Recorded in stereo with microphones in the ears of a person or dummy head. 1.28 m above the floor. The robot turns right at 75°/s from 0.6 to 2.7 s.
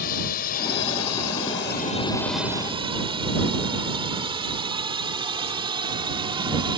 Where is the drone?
45° left (ahead or behind); by 6.8 s 20° right (ahead or behind).